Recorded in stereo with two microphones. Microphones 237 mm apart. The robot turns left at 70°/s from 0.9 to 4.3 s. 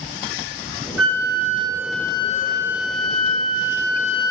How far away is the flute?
About 0.7 m.